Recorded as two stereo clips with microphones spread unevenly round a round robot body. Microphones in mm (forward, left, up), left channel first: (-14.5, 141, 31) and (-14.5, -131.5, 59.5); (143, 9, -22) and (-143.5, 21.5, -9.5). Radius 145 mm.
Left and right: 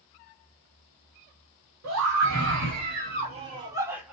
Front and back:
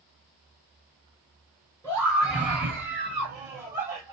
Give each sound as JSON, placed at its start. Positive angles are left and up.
{"t": 1.8, "sound": "a scream", "azimuth_deg": -95, "distance_m": 1.8}